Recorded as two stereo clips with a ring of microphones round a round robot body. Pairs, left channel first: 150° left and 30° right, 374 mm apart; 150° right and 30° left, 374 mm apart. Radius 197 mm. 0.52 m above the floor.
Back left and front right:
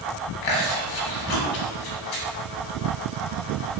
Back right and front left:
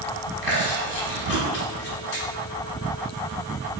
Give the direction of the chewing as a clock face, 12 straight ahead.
7 o'clock.